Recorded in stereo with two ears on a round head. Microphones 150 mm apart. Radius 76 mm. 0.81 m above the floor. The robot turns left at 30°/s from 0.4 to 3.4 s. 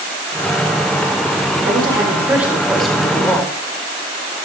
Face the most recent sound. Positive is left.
turn(degrees=160)